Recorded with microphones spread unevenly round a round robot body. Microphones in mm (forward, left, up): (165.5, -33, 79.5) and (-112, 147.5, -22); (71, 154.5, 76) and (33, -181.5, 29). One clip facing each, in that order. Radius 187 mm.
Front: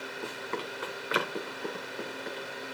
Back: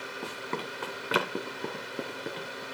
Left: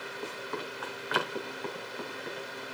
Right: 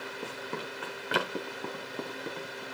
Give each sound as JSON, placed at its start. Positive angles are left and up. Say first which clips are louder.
{"t": 0.2, "sound": "running footsteps", "louder": "even, left 1 dB", "azimuth_deg": -155, "distance_m": 1.7}